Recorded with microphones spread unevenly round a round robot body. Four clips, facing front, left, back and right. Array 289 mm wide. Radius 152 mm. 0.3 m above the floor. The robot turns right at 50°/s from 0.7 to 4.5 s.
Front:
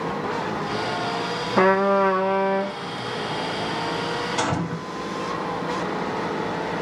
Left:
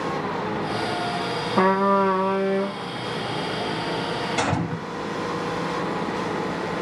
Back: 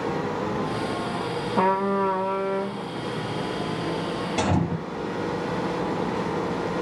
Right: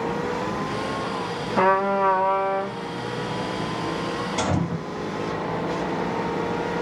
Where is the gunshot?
170° left, 3.5 m; by 4.8 s straight behind, 3.5 m.